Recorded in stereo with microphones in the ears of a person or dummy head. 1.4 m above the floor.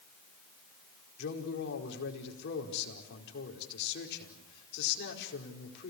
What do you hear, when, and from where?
1.2 s a man speaking: 65° left (ahead or behind), 4.5 m